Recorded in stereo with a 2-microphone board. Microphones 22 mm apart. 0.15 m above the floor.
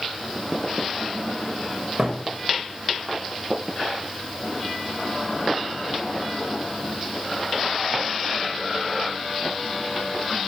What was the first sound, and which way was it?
A thud, 15° right (ahead or behind).